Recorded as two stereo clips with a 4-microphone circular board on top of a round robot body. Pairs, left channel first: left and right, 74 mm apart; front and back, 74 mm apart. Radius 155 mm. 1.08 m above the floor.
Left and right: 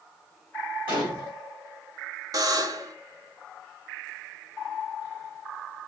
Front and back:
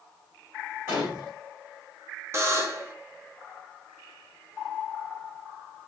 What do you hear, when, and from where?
0.9 s a gunshot: 120° right, 1.2 m
2.3 s a buzzer: 125° right, 0.6 m